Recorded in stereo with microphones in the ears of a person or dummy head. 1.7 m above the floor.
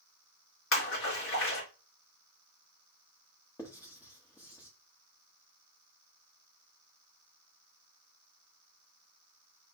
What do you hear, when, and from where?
0.7 s a splash: 70° left (ahead or behind), 2.5 m
3.6 s writing: 15° left (ahead or behind), 0.8 m